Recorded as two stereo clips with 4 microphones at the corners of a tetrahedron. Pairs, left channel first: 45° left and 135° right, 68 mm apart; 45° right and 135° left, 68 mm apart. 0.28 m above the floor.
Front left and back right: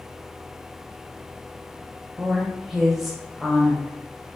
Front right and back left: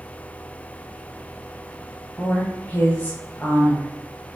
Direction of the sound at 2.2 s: 50° right.